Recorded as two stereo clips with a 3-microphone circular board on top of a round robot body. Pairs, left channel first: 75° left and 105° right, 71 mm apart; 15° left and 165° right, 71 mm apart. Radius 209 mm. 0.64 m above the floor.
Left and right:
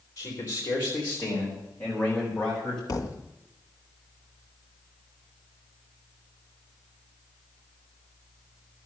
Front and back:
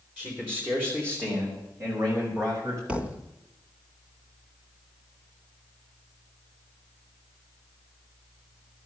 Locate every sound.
0.2 s a man speaking: 125° left, 4.5 m; by 2.8 s 155° left, 6 m
2.9 s a thud: 120° left, 1.3 m